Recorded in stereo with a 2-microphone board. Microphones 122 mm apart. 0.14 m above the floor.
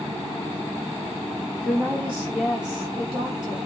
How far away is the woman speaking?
About 3 m.